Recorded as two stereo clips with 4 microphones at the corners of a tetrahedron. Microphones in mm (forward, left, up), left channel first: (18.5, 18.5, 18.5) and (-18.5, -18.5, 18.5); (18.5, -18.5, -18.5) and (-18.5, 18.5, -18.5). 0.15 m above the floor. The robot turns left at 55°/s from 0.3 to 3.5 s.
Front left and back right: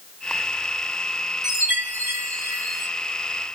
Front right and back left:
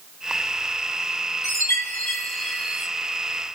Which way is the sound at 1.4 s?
55° right.